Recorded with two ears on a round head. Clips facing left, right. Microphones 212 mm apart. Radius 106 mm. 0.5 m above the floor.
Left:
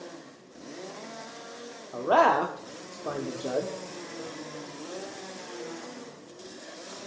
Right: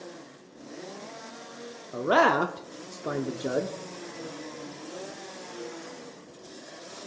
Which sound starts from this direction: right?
A man speaking, at 1.9 s.